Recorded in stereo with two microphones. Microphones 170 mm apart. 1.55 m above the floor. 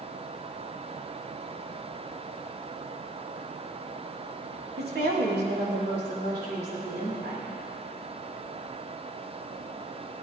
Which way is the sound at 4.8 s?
70° right (ahead or behind).